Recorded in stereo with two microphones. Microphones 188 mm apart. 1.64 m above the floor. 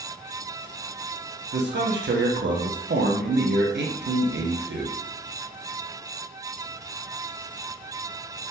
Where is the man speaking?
70° right (ahead or behind), 0.6 m.